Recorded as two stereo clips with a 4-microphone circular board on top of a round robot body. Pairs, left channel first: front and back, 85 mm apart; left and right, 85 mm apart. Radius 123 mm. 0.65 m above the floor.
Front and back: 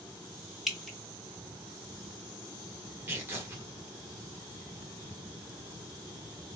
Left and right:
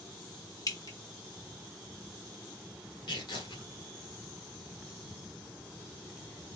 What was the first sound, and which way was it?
Dripping, 90° left.